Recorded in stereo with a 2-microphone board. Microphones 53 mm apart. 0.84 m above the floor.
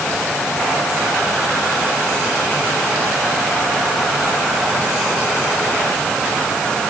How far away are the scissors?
I don't hear scissors.